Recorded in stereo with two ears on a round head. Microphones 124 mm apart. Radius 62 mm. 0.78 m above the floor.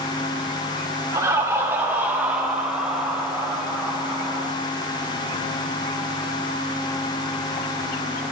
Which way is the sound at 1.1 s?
25° right (ahead or behind).